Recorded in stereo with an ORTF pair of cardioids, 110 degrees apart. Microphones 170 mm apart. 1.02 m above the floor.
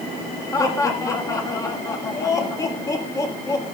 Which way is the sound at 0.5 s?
20° left.